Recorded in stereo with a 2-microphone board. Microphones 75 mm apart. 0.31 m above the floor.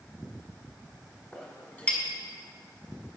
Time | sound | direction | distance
1.3 | a clink | 20° left (ahead or behind) | 1.5 m